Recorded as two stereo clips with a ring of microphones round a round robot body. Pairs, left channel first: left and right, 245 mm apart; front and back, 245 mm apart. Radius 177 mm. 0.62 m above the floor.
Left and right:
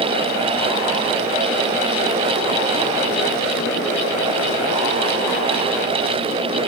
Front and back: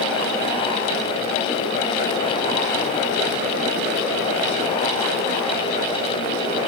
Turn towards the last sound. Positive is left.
No sound to turn to.